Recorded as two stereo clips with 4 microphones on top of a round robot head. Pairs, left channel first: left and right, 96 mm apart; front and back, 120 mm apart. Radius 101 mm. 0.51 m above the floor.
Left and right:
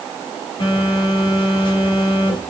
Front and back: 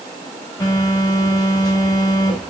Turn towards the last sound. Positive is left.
turn(degrees=60)